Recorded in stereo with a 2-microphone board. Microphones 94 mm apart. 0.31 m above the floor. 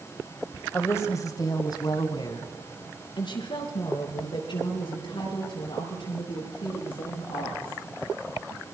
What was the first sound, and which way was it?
A woman speaking, 25° left (ahead or behind).